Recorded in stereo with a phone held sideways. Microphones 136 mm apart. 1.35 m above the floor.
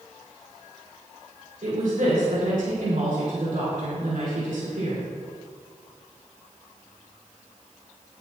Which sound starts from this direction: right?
A woman speaking, at 1.6 s.